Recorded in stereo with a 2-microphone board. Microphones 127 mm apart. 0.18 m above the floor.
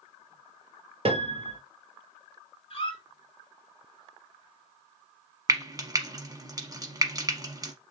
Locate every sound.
1.1 s a piano: 50° right (ahead or behind), 0.9 m
2.7 s a squeak: 45° left (ahead or behind), 1.3 m
5.5 s frying: 30° right (ahead or behind), 0.9 m